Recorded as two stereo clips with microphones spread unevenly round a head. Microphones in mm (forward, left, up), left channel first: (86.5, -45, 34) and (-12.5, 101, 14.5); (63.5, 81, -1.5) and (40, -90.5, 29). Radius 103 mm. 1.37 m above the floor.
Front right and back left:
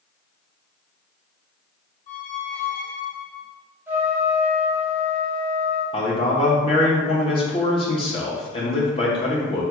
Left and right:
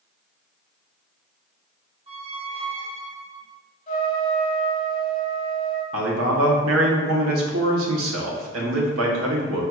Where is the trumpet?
45° left, 0.9 m.